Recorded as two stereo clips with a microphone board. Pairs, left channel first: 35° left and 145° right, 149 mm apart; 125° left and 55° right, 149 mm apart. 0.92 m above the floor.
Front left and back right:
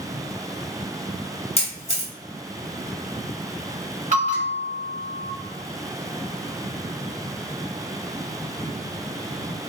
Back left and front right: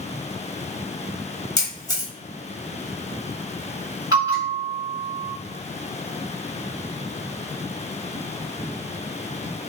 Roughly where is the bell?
Behind right.